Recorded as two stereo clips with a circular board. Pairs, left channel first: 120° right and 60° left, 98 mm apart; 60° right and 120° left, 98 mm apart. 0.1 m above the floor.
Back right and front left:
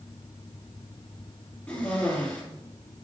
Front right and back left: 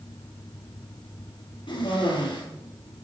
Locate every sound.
1.7 s a cough: 60° right, 2.5 m